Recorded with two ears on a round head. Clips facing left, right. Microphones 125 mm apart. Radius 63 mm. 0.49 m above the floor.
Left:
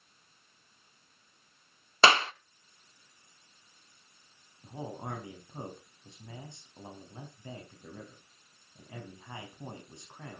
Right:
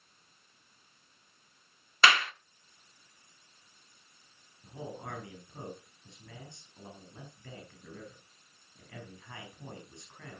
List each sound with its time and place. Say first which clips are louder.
2.0 s a clap: left 3 dB; 25° left (ahead or behind), 0.8 m
4.6 s a man speaking: left 2 dB; 20° left (ahead or behind), 4.5 m